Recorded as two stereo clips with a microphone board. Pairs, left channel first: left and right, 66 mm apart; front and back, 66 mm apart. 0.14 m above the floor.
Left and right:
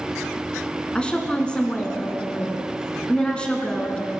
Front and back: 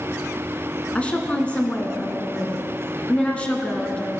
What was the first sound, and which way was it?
A woman speaking, 40° left.